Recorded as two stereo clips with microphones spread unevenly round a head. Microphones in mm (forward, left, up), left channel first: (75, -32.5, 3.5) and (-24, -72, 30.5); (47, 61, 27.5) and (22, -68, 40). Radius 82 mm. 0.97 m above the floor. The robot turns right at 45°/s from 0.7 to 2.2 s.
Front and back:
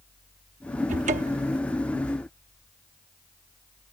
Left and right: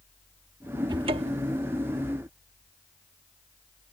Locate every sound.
0.9 s a cupboard door: 165° right; by 1.6 s 135° right